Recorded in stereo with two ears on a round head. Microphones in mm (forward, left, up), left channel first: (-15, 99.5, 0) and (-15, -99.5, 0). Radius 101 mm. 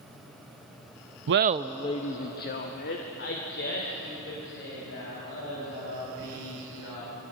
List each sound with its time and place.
1.3 s laughter: 60° right (ahead or behind), 0.6 m; by 7.1 s 60° left (ahead or behind), 7.5 m